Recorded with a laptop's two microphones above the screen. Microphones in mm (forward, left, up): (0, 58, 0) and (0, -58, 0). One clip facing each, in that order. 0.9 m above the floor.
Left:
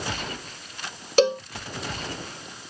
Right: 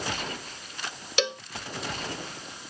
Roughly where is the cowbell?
Left.